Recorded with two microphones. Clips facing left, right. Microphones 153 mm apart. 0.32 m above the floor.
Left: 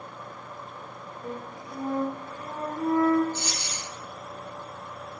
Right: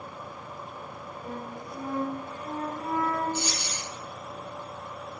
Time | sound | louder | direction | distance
1.2 | a flute | left 1 dB | 60° left (ahead or behind) | 1.9 m
3.3 | a dropped coin | right 2 dB | 10° right (ahead or behind) | 1.7 m